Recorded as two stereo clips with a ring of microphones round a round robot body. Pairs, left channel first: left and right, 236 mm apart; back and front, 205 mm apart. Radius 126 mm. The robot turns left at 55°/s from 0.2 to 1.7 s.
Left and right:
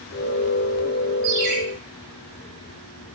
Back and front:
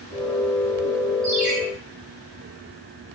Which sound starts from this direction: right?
A ringtone, at 1.2 s.